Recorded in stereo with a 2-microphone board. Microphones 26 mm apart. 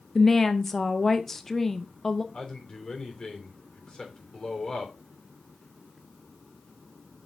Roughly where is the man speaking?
Left.